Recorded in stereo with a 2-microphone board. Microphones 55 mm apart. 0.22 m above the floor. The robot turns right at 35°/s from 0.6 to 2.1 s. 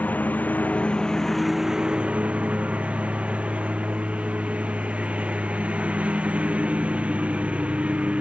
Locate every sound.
0.0 s a lawn mower: 150° left; by 8.2 s 155° right